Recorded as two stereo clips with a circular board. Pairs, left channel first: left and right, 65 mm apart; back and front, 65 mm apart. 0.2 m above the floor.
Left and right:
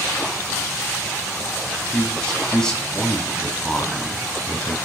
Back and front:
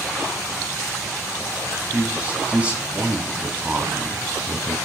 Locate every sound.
1.9 s a man speaking: 30° left, 1.0 m